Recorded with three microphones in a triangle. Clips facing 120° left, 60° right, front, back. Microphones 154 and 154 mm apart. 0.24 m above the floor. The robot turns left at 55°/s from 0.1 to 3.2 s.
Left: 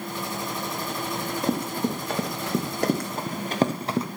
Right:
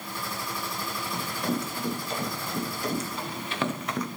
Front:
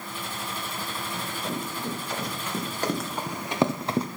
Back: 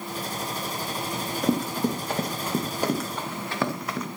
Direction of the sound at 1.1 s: 155° right.